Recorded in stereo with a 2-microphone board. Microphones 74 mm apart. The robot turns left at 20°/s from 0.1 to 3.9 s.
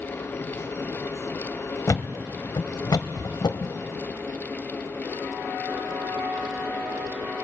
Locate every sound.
1.9 s a thud: 45° left (ahead or behind), 0.7 m; by 3.8 s 75° left (ahead or behind), 0.7 m